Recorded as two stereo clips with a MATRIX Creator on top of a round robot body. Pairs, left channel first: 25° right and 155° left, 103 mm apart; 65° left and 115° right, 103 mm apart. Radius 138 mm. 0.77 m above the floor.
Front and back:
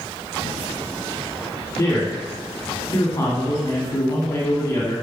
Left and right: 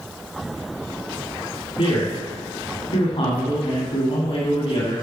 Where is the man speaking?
40° left, 1.6 m.